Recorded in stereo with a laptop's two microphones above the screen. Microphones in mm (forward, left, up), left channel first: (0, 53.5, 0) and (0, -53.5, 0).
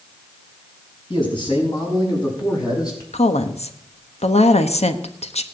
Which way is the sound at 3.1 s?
80° left.